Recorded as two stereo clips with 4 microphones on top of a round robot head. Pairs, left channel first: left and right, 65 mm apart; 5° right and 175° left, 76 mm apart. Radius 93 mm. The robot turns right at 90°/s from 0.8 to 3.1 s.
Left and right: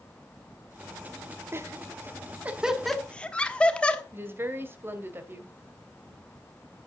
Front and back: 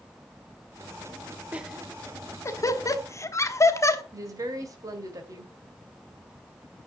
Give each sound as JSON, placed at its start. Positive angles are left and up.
{"t": 1.5, "sound": "laughter", "azimuth_deg": -120, "distance_m": 1.4}
{"t": 4.1, "sound": "a woman speaking", "azimuth_deg": -140, "distance_m": 2.0}